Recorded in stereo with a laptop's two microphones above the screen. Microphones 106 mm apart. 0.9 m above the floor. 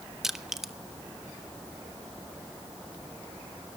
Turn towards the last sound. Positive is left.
turn(degrees=-5)  # may be behind; listen again after turning